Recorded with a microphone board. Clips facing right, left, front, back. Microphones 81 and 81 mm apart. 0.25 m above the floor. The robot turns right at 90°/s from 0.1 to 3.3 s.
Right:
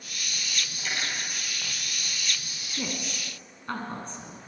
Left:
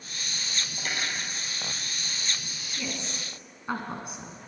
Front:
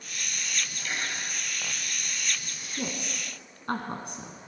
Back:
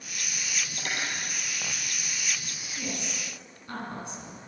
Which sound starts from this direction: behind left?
Cutlery clinking, at 0.8 s.